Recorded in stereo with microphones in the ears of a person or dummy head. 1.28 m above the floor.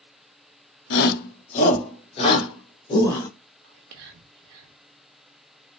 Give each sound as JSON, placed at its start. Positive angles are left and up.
{"t": 0.9, "sound": "a shout", "side_deg": 65, "distance_m": 0.9}
{"t": 3.6, "sound": "whispering", "side_deg": -75, "distance_m": 0.7}